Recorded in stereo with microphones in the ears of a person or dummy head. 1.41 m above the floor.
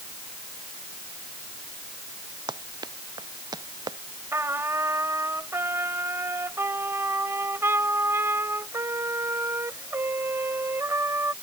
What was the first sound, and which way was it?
Running footsteps, 25° right (ahead or behind).